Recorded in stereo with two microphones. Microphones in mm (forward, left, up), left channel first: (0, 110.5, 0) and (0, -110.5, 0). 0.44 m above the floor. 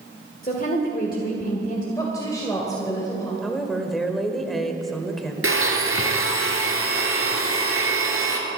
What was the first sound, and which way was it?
A woman speaking, 40° left (ahead or behind).